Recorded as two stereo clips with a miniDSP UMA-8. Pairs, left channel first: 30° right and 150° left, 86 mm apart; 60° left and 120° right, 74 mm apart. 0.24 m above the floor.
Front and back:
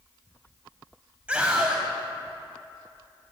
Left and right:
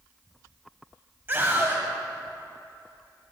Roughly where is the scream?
Behind right.